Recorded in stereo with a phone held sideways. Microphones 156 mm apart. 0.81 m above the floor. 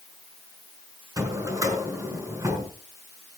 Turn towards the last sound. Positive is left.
turn(degrees=-20)  # may be behind; listen again after turning